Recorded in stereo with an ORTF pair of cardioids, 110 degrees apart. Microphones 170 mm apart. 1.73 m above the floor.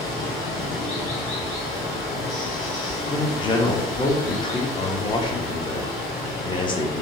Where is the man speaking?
30° left, 0.8 m.